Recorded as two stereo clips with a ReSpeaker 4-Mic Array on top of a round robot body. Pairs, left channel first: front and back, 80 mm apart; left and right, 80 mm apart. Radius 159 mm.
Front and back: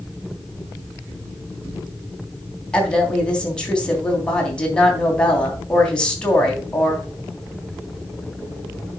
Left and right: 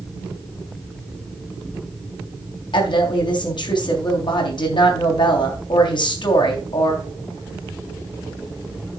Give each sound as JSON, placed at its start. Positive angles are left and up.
{"t": 2.7, "sound": "a woman speaking", "azimuth_deg": 80, "distance_m": 3.5}